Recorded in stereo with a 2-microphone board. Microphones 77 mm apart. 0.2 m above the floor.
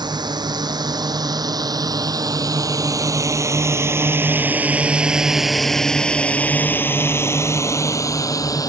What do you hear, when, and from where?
0.0 s a drone: 65° right (ahead or behind); by 8.7 s 50° left (ahead or behind)